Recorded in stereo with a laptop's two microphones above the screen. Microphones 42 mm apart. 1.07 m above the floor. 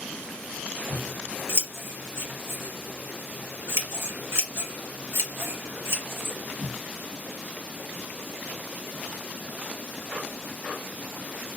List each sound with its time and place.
0.9 s scissors: 70° right (ahead or behind), 1.6 m